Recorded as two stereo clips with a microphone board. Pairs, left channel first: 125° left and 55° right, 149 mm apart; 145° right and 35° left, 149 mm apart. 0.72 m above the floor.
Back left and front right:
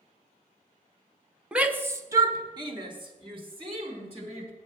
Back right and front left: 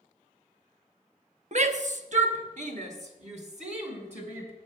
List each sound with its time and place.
1.5 s a shout: 25° left, 0.7 m; by 4.5 s 5° right, 2 m